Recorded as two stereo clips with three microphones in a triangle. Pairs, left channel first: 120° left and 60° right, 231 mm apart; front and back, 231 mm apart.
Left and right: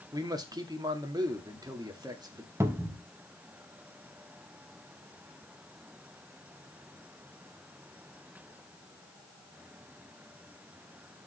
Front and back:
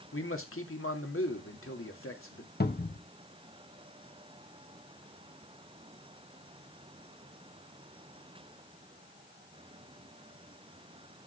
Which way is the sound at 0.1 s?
15° left.